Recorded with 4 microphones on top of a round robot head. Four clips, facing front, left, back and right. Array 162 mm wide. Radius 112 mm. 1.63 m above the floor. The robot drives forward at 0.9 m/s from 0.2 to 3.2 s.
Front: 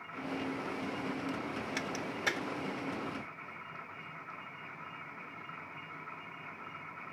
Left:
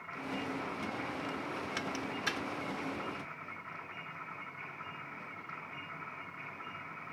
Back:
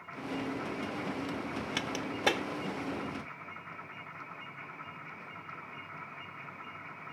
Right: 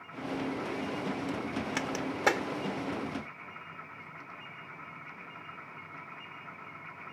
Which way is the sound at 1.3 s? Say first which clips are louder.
Right 5 dB, back 1 dB; 110° right.